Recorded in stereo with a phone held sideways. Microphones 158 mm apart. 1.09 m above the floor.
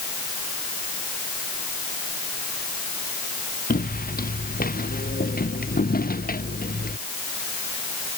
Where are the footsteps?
75° left (ahead or behind); by 7.0 s 80° left.